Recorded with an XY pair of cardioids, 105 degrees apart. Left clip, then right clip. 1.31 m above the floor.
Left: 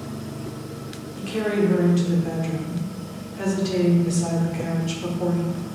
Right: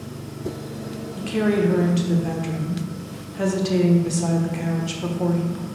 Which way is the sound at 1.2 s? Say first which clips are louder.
Right 1 dB; 25° right.